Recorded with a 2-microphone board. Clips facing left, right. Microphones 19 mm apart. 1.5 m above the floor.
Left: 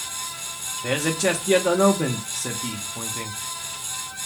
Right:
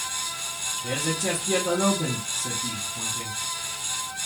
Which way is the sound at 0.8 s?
55° left (ahead or behind).